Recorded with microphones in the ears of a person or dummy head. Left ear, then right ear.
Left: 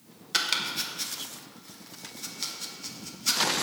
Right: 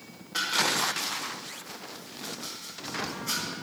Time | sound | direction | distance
0.3 | chopping | 60° left (ahead or behind) | 1.4 m